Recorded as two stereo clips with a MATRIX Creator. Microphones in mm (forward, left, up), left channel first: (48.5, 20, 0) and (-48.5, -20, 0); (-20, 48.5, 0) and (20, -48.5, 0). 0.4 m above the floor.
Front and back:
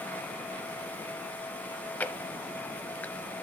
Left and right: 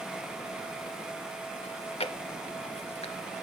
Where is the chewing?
95° left, 0.6 m.